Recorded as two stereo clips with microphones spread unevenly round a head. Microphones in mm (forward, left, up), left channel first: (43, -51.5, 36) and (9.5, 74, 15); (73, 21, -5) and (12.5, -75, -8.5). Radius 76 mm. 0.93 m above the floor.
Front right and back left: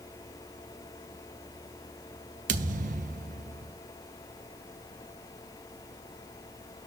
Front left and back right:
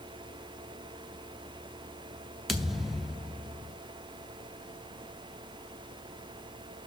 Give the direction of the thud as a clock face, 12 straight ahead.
7 o'clock.